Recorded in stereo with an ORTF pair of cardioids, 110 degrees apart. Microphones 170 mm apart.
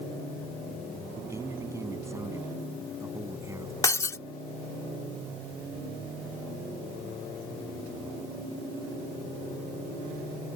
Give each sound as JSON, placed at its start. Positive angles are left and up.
{"t": 1.2, "sound": "a man speaking", "azimuth_deg": -15}
{"t": 3.8, "sound": "breaking glass", "azimuth_deg": 20}